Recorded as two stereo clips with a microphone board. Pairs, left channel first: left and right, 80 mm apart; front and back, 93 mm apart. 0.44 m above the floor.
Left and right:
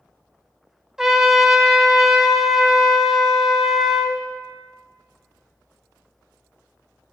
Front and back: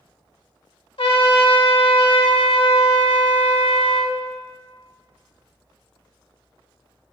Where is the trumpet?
5° right, 0.6 m.